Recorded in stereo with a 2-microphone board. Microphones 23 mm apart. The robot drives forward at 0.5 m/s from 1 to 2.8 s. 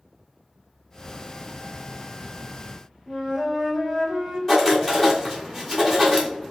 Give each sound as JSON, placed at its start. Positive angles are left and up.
{"t": 3.1, "sound": "a flute", "side_deg": 10, "distance_m": 1.3}
{"t": 4.5, "sound": "writing", "side_deg": 15, "distance_m": 1.6}